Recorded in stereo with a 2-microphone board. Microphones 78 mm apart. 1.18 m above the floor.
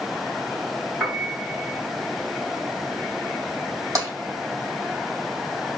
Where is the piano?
5° right (ahead or behind), 3 m.